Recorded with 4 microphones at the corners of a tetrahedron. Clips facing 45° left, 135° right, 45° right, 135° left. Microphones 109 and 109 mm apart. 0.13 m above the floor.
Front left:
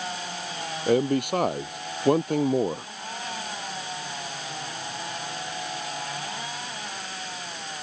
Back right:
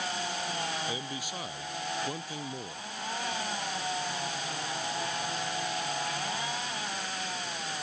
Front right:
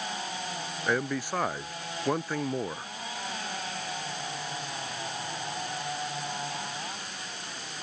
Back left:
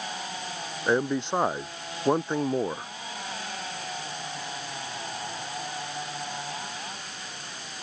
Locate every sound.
0.9 s a man speaking: 70° left